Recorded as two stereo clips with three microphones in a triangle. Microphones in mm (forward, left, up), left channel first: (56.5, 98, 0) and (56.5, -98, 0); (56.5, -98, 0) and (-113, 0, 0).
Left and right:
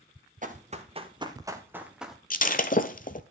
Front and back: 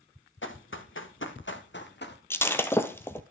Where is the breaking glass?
45° left, 0.9 m.